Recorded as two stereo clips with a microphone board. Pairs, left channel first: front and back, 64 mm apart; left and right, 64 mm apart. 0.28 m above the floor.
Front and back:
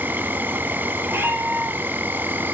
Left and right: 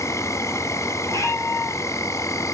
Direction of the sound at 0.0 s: 125° left.